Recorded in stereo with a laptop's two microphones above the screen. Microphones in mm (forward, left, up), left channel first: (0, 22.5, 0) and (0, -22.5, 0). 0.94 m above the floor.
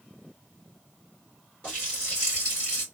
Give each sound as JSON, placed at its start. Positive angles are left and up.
{"t": 1.6, "sound": "a running tap", "side_deg": 25, "distance_m": 2.5}